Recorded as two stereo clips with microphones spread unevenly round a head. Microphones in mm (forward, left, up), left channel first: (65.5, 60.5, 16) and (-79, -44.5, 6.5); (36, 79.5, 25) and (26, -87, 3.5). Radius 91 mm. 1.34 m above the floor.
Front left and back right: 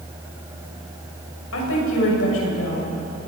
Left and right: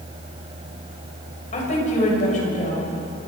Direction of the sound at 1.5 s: 40° left.